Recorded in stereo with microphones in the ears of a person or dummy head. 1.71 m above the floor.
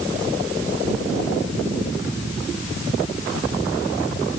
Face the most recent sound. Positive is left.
No sound to turn to.